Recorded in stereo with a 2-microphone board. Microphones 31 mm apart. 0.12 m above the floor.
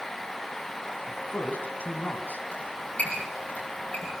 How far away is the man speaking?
About 5 m.